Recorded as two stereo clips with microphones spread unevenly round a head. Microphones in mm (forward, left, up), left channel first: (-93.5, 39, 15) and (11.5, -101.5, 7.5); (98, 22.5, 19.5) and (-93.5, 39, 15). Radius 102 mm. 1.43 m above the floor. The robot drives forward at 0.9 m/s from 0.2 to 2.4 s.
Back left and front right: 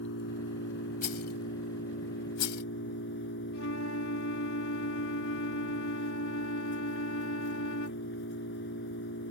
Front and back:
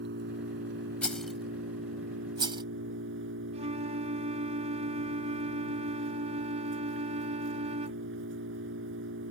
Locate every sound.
0.0 s an engine running: 140° left; by 9.3 s 150° left
1.0 s a rattle: 80° left; by 2.6 s 110° left
3.5 s a flute: 115° left